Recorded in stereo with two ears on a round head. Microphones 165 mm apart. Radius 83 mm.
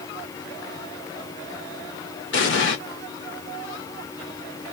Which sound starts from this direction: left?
An explosion, at 2.3 s.